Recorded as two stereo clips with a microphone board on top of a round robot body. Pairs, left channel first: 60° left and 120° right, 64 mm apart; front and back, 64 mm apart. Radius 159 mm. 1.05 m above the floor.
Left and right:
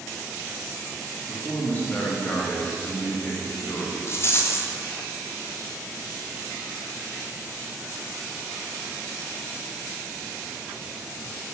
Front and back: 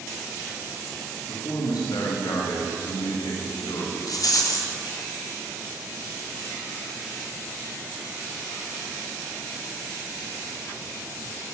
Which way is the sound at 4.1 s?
15° left.